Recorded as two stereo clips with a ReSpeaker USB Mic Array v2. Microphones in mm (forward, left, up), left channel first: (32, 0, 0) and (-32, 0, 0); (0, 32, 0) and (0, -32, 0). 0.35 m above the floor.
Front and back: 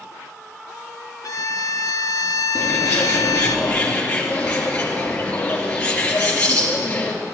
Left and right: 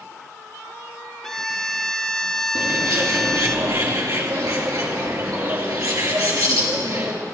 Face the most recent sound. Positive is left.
turn(degrees=-70)